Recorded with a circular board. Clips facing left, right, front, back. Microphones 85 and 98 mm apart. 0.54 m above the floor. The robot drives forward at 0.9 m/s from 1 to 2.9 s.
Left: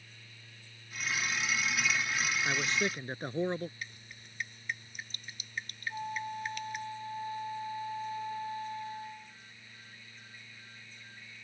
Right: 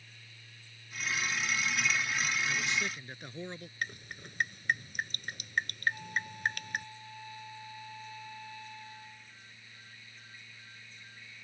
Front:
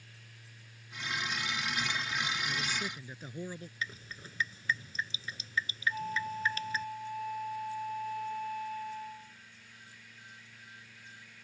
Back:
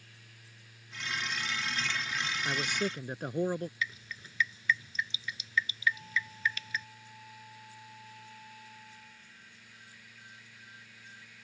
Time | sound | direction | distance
2.5 | a man speaking | 140° left | ?
3.8 | dripping | 55° right | ?
5.9 | a flute | 35° left | ?